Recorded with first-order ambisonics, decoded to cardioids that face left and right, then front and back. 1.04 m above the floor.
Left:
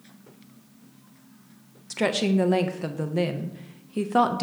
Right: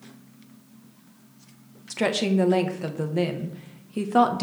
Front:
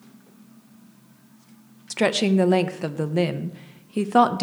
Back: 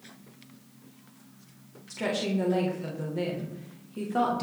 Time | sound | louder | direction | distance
1.9 | a woman speaking | even, front 9 dB | straight ahead | 0.9 m